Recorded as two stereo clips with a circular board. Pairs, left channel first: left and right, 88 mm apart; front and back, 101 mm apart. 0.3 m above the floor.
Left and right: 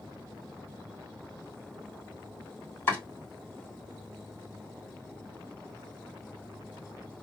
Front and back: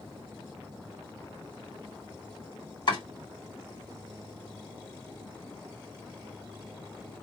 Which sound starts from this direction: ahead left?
Chopping, at 2.9 s.